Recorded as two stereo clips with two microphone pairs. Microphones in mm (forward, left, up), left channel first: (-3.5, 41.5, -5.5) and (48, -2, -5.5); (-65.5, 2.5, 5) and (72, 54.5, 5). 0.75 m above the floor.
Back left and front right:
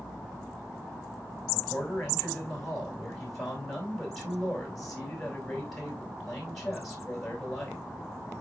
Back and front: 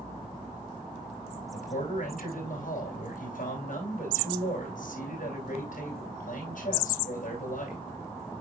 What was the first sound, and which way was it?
A man speaking, 135° right.